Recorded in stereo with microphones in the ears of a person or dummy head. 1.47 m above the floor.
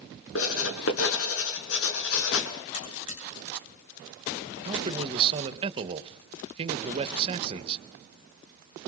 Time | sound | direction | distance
0.3 | writing | 75° left (ahead or behind) | 4.5 m
2.7 | a buzzer | 40° left (ahead or behind) | 8 m
4.7 | a man speaking | 35° right (ahead or behind) | 1.8 m